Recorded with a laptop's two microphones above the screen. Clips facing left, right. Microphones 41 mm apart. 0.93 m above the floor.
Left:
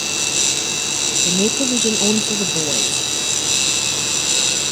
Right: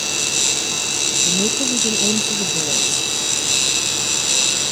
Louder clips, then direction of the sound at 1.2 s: Left 4 dB; 20° left (ahead or behind).